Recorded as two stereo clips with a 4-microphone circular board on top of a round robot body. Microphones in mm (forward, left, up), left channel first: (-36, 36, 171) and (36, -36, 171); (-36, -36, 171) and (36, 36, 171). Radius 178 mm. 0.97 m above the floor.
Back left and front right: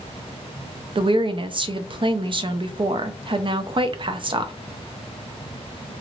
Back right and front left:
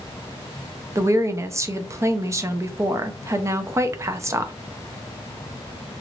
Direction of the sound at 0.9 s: 15° right.